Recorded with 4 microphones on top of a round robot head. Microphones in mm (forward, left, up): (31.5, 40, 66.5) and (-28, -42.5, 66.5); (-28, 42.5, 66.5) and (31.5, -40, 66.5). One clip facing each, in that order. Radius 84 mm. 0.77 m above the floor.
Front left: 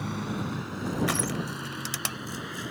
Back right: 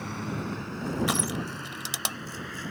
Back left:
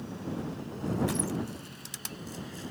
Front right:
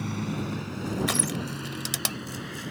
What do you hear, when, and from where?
0.0 s a vehicle: 30° right; by 2.7 s 20° right
1.1 s crushing: 50° right